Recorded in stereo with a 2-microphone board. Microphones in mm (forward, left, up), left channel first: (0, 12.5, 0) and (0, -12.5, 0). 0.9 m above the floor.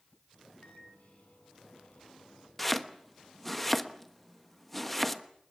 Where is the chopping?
5° left (ahead or behind), 1.2 m.